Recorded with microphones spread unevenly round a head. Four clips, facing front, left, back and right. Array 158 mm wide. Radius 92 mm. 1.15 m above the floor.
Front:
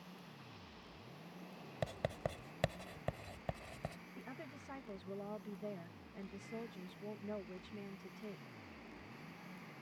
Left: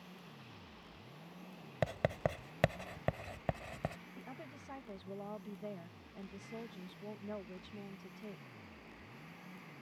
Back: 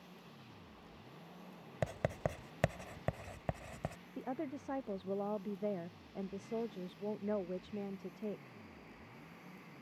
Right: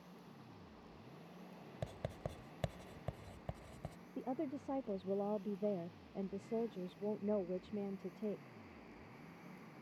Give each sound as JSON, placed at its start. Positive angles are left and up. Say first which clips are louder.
{"t": 1.8, "sound": "writing", "louder": "left 11 dB, back 3 dB", "azimuth_deg": 130}
{"t": 4.2, "sound": "a woman speaking", "louder": "right 9 dB, back 10 dB", "azimuth_deg": -130}